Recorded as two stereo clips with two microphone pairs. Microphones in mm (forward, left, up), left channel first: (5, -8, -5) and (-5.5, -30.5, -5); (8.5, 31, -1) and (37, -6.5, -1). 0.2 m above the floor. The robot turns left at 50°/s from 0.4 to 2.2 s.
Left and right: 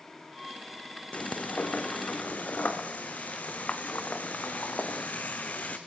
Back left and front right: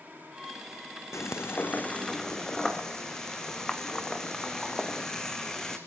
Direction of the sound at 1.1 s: 100° left.